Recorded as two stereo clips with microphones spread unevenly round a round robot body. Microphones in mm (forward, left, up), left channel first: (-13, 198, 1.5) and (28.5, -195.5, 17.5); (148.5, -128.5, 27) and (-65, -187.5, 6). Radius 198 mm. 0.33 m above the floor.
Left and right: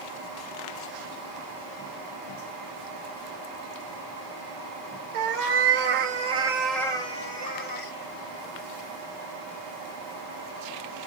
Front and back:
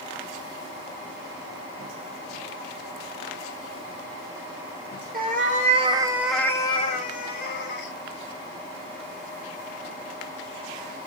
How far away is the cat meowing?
About 0.9 m.